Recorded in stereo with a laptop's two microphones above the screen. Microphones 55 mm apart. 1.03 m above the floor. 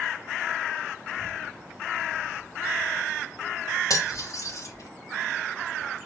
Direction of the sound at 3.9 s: 70° left (ahead or behind).